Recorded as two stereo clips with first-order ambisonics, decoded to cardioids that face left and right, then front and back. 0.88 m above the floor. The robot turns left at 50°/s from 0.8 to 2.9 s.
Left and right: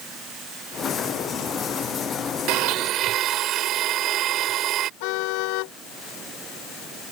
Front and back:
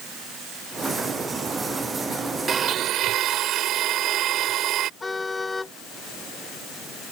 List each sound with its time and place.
2.5 s a blender: 115° right; by 4.9 s 135° right
5.0 s a car horn: 80° left